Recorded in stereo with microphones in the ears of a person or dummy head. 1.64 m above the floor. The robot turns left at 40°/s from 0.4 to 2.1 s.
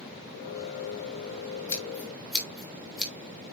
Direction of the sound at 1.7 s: 20° left (ahead or behind).